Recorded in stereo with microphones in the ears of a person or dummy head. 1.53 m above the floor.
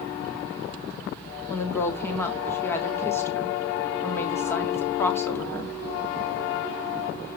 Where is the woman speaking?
10° left (ahead or behind), 1.5 m.